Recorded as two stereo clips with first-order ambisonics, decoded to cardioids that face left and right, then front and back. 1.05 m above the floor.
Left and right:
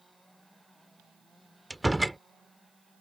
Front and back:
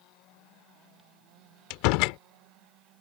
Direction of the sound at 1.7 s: Straight ahead.